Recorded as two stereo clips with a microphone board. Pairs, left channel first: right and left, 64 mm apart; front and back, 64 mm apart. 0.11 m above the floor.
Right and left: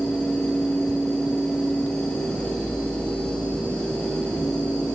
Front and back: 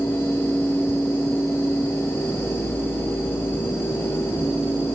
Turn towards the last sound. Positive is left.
No sound to turn to.